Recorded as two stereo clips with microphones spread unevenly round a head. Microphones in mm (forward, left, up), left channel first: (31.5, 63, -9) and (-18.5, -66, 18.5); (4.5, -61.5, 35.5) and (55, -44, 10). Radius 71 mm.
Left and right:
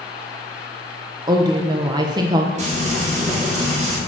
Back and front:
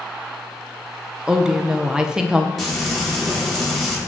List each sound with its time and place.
1.3 s a woman speaking: 45° right, 0.6 m
2.6 s frying: 65° right, 3 m